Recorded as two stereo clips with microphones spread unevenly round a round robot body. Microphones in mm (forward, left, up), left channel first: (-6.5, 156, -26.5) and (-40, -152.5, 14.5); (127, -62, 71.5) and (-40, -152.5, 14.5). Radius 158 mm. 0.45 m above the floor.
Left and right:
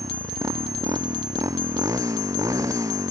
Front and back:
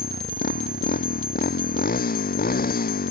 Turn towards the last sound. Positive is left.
turn(degrees=-15)